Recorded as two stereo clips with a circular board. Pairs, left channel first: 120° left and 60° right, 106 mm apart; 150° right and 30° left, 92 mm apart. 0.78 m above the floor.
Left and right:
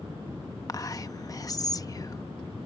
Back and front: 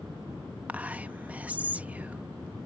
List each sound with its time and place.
0.7 s whispering: 95° left